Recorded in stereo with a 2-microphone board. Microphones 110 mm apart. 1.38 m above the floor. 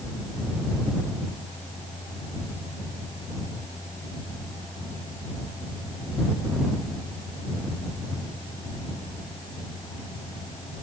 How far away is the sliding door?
I don't hear a sliding door.